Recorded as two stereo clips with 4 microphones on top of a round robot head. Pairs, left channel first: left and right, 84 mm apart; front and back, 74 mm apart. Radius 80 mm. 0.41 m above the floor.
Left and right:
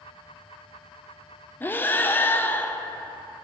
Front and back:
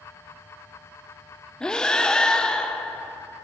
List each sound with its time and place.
1.6 s breathing: 65° left, 0.7 m